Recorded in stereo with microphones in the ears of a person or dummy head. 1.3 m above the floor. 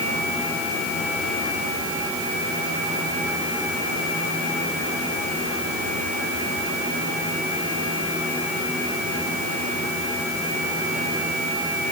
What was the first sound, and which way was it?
Only background noise.